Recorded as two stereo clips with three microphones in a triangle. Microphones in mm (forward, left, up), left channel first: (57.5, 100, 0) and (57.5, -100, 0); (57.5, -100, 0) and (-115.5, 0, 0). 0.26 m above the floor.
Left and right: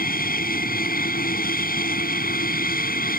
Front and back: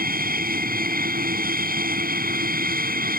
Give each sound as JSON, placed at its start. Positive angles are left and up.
{"t": 0.0, "sound": "an aircraft", "azimuth_deg": 120}